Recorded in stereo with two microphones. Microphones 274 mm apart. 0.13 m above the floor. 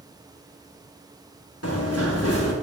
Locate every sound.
1.6 s running footsteps: 60° left (ahead or behind), 2 m